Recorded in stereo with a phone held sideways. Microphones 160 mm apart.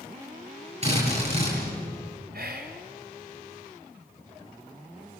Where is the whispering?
75° right (ahead or behind), 3.5 m.